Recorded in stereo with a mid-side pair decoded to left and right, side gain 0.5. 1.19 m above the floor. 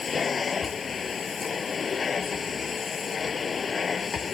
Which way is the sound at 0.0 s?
35° left.